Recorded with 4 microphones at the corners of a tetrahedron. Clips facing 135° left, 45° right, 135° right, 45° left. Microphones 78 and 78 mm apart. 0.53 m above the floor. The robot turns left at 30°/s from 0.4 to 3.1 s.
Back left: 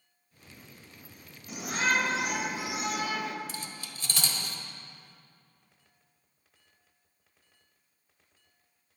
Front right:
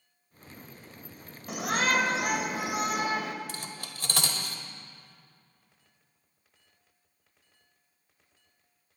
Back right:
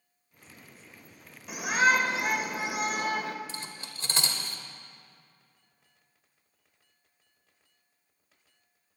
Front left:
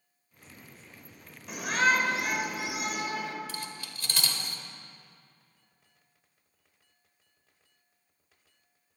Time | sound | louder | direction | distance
1.5 | a shout | front right 2 dB, back right 2 dB | 45° right | 1.7 m
3.5 | cutlery clinking | front right 1 dB, front left 2 dB | 75° right | 1.3 m